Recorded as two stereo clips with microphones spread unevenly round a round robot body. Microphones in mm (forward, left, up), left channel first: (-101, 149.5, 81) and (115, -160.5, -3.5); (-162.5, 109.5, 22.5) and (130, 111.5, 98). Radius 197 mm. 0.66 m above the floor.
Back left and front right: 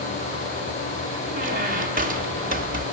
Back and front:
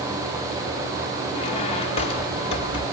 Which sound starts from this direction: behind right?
A squeak, at 1.3 s.